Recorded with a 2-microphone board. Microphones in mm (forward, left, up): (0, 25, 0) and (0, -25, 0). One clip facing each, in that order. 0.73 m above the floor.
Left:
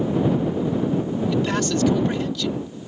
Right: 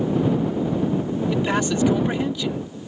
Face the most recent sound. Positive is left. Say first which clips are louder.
# right 1 dB
turn(degrees=-15)  # may be behind; listen again after turning